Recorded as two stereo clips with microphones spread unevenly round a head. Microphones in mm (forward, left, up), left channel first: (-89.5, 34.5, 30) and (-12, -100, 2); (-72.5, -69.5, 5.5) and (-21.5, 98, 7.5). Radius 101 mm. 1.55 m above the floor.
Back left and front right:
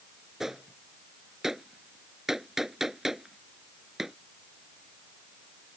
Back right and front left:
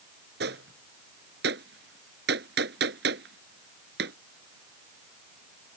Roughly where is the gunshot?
Ahead left.